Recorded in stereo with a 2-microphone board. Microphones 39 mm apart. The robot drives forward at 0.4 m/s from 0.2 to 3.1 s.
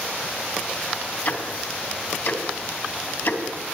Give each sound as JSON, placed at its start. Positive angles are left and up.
{"t": 1.2, "sound": "ticking", "side_deg": 50, "distance_m": 4.0}